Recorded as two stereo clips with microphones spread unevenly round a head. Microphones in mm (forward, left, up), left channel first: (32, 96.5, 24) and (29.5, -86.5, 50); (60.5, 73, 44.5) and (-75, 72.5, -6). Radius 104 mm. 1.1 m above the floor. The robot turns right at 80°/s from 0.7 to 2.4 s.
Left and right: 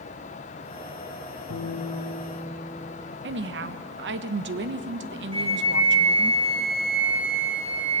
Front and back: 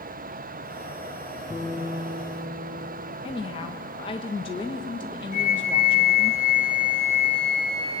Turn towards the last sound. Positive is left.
turn(degrees=-30)